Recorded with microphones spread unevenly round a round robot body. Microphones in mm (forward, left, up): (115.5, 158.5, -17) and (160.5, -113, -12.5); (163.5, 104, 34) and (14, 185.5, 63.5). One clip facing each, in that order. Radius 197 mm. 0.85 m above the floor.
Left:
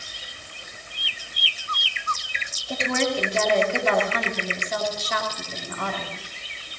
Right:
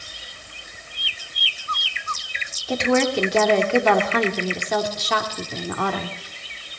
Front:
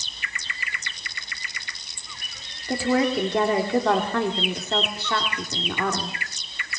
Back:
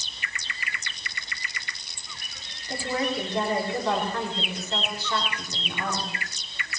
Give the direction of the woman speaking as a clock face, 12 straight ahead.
2 o'clock.